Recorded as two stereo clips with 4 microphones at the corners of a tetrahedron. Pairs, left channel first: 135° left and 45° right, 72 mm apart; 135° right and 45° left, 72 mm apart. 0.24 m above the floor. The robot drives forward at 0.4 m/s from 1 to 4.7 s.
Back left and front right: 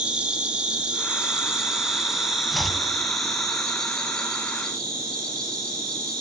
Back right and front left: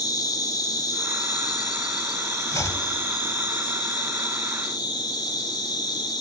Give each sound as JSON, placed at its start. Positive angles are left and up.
{"t": 0.0, "sound": "an insect", "azimuth_deg": -120, "distance_m": 1.8}
{"t": 2.5, "sound": "chopping", "azimuth_deg": -135, "distance_m": 0.8}